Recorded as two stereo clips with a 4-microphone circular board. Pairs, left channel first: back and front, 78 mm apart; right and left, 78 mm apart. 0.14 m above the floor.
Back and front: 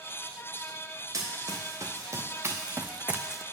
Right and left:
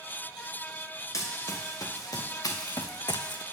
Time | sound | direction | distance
1.1 | running footsteps | 45° right | 2 m